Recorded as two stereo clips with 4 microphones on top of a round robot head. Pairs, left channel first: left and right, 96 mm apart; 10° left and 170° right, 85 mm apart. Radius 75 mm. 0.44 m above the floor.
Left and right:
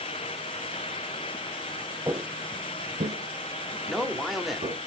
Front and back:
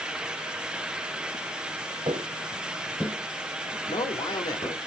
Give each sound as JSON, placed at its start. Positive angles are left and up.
{"t": 2.1, "sound": "footsteps", "azimuth_deg": -150, "distance_m": 0.6}
{"t": 3.9, "sound": "a man speaking", "azimuth_deg": 0, "distance_m": 1.1}